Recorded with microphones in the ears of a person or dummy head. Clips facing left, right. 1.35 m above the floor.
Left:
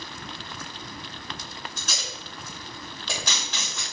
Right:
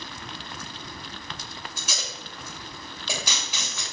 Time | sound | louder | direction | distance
1.8 | tape being pulled | even | 10° right (ahead or behind) | 2.5 m